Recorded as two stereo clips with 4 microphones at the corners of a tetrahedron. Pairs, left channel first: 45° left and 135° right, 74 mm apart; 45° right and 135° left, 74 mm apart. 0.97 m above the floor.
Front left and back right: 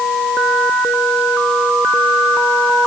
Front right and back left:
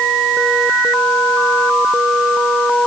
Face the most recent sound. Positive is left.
No sound to turn to.